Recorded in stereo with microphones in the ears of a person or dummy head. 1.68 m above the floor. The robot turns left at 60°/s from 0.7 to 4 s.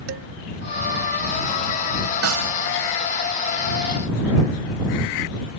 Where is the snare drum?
90° right; by 2.5 s 70° right (ahead or behind).